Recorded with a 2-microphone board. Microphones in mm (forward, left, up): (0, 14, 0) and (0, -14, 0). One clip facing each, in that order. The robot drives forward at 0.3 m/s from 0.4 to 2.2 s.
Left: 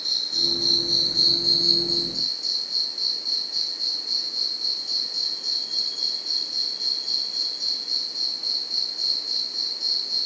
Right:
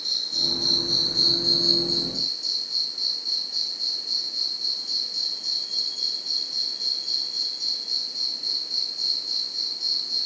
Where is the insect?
10° left (ahead or behind); by 10.3 s 5° left (ahead or behind).